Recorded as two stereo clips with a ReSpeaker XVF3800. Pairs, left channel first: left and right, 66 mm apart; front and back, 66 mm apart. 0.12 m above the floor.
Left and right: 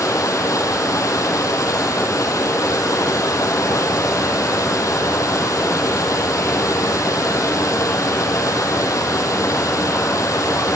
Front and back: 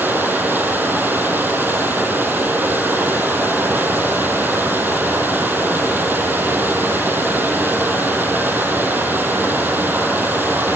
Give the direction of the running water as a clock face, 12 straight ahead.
8 o'clock.